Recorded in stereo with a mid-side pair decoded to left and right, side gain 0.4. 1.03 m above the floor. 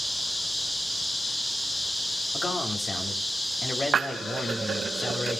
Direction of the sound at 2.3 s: 35° left.